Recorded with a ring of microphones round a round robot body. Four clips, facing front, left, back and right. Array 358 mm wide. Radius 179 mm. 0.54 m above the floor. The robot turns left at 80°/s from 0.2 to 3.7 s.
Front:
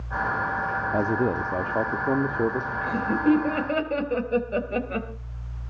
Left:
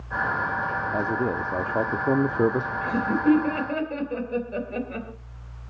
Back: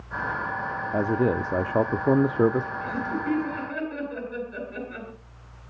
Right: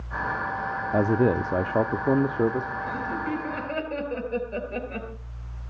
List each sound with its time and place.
0.9 s a man speaking: 85° right, 0.6 m; by 2.7 s 135° left, 0.6 m
2.8 s laughter: 70° left, 3 m; by 5.1 s straight ahead, 3 m